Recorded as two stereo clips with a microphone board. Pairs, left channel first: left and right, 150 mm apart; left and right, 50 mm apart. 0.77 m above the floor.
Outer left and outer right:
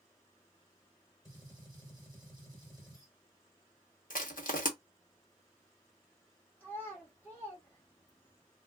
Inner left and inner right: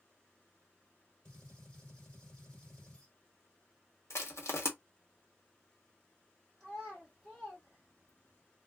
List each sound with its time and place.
1.2 s a gunshot: 20° left (ahead or behind), 1.3 m
4.1 s crushing: 65° left (ahead or behind), 0.7 m
6.6 s a child speaking: 15° left (ahead or behind), 1.1 m